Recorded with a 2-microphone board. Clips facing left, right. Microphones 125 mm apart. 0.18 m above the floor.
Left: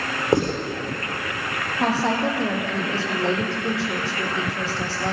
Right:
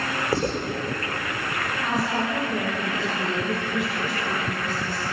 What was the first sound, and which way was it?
Writing, 25° left (ahead or behind).